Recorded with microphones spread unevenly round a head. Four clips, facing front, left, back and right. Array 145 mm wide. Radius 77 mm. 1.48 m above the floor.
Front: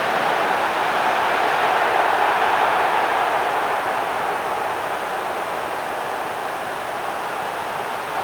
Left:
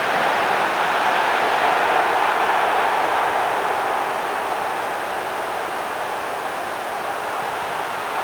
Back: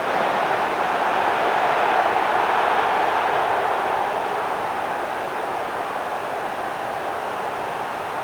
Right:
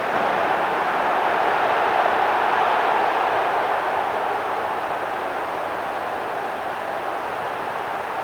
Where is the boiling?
No boiling in this recording.